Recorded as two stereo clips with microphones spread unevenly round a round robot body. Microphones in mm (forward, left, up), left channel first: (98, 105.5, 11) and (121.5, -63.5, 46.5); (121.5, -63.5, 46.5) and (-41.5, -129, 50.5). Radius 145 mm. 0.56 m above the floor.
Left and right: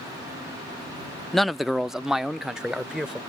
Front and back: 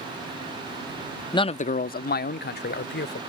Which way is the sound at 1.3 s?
40° left.